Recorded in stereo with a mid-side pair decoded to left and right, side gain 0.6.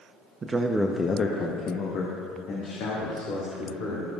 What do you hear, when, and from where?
0.4 s a man speaking: 30° right, 0.9 m; by 4.1 s 75° left, 4 m